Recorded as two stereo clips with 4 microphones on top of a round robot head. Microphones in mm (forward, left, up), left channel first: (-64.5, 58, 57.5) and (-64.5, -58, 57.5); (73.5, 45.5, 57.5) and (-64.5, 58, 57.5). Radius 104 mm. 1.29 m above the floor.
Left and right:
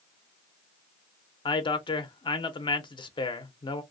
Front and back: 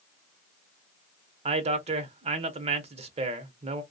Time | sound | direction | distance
1.4 | a man speaking | 135° left | 0.7 m